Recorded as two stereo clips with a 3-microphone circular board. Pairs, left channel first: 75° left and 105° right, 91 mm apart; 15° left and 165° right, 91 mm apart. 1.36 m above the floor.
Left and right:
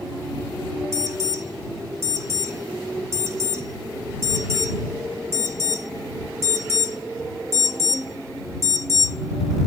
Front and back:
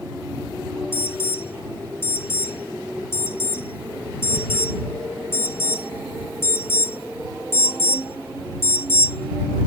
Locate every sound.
0.9 s an alarm: 50° right